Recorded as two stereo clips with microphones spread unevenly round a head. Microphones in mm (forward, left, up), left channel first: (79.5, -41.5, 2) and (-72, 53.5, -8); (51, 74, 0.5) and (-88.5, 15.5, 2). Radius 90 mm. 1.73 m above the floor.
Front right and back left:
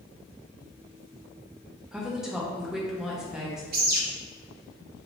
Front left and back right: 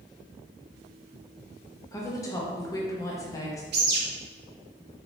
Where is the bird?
170° right, 0.6 m.